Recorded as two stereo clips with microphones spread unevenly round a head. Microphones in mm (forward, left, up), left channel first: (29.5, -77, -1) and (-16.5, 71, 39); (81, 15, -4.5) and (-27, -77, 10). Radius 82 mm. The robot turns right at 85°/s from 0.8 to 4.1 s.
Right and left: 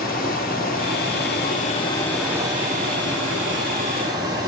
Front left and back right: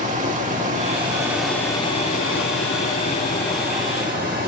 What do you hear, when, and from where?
0.0 s running water: 105° right, 2 m; by 4.5 s 175° left, 2 m